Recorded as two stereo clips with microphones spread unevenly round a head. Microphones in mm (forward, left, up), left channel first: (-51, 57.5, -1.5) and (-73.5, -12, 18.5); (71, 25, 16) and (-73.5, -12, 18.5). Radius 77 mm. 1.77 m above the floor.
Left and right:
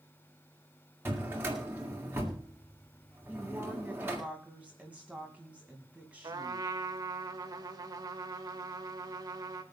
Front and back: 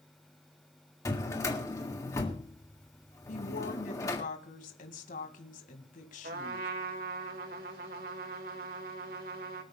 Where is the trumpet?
135° right, 2 m.